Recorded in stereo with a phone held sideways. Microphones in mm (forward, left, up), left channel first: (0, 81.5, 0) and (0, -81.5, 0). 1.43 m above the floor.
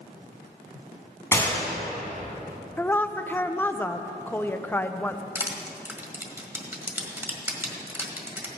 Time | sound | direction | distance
1.3 | a gunshot | 15° left (ahead or behind) | 2.5 m
2.8 | a woman speaking | 10° left (ahead or behind) | 0.6 m
5.3 | crushing | 15° right (ahead or behind) | 1.6 m